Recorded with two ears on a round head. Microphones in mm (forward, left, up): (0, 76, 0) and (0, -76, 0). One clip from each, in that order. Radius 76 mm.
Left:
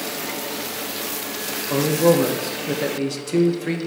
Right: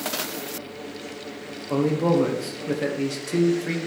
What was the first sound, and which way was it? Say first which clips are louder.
A man speaking: left 4 dB; 5° left (ahead or behind).